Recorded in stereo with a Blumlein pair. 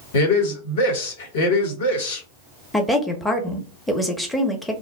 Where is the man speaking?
55° left, 1.1 m.